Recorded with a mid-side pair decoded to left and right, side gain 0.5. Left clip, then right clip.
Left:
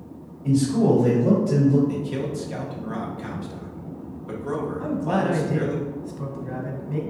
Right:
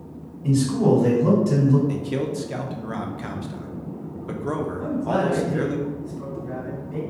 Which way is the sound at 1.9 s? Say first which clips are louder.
Right 2 dB; 30° right.